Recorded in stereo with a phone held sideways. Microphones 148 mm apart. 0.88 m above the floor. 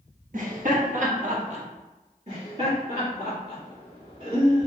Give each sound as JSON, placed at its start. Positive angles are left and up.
{"t": 0.3, "sound": "laughter", "side_deg": -60, "distance_m": 1.2}
{"t": 2.3, "sound": "laughter", "side_deg": -60, "distance_m": 1.8}